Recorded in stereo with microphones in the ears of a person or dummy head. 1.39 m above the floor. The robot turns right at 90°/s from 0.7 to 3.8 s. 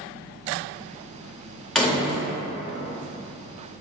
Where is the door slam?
5° right, 0.8 m; by 2.3 s 45° left, 0.8 m.